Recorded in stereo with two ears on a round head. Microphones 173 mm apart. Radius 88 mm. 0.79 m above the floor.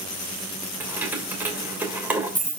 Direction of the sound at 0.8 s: 10° right (ahead or behind).